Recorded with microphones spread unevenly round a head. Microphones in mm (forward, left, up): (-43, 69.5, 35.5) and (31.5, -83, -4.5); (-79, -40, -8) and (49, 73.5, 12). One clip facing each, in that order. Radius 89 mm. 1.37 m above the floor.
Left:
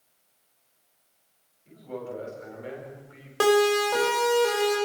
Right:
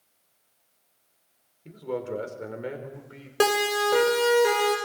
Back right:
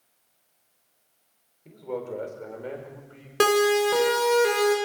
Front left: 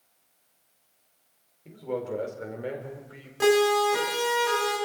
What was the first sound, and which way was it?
A man speaking, 45° right.